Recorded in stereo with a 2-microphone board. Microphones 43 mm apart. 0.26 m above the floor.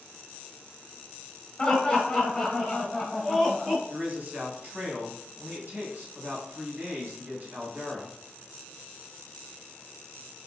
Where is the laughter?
20° left (ahead or behind), 1.0 m; by 3.8 s centre (ahead or behind), 1.5 m.